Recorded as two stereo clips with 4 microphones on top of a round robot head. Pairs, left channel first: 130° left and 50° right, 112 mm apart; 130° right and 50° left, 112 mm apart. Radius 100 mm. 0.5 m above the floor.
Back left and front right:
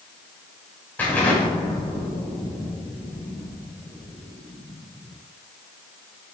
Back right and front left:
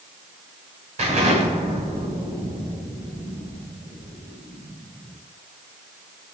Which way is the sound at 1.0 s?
55° left.